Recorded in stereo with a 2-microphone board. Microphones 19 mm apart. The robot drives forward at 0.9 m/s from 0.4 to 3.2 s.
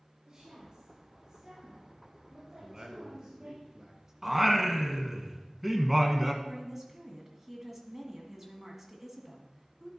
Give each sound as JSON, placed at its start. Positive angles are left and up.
{"t": 0.2, "sound": "a woman speaking", "side_deg": -55, "distance_m": 3.0}
{"t": 2.6, "sound": "a man speaking", "side_deg": -25, "distance_m": 1.5}
{"t": 4.2, "sound": "singing", "side_deg": -5, "distance_m": 0.9}
{"t": 6.4, "sound": "a woman speaking", "side_deg": -10, "distance_m": 1.6}